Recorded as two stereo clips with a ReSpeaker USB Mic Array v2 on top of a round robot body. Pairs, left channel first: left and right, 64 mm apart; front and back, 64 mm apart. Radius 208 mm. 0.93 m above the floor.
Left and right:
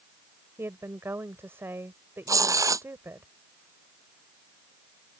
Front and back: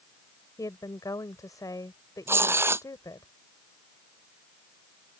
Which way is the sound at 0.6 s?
35° right.